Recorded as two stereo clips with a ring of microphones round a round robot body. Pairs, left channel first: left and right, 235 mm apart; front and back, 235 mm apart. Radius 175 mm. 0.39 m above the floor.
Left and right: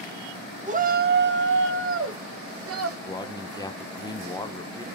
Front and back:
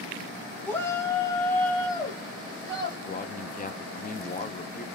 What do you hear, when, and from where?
0.7 s a shout: 75° right, 0.8 m
3.1 s a man speaking: 25° left, 0.8 m